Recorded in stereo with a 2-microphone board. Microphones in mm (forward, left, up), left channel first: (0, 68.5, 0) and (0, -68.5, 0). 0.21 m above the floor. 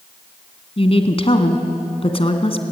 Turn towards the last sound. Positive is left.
turn(degrees=45)  # may be behind; listen again after turning